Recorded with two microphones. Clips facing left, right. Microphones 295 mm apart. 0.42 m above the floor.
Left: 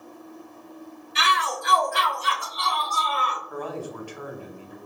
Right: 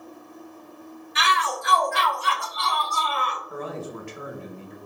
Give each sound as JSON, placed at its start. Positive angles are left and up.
{"t": 1.1, "sound": "a shout", "side_deg": 35, "distance_m": 1.9}
{"t": 3.5, "sound": "a man speaking", "side_deg": -25, "distance_m": 0.9}